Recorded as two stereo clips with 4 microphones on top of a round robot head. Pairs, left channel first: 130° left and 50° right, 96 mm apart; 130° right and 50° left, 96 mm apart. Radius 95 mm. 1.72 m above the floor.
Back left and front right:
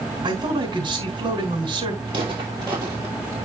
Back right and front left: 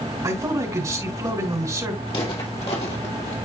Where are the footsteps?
90° right, 2.5 m; by 3.4 s 115° right, 2.5 m.